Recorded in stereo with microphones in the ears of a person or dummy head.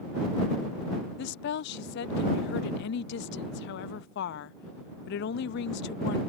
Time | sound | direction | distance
1.2 | a woman speaking | 55° left (ahead or behind) | ?